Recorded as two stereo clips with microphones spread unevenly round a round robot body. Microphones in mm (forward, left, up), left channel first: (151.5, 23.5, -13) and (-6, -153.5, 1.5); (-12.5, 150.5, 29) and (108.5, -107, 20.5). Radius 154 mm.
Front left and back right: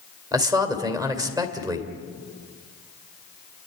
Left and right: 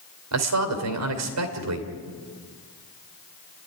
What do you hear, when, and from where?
0.3 s a man speaking: 55° right, 2.5 m